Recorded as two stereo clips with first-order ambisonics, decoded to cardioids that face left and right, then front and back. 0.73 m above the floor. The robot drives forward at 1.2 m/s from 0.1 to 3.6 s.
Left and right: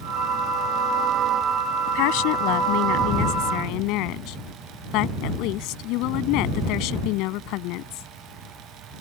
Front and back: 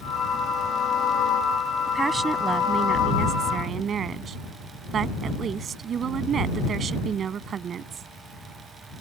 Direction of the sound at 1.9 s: 100° left.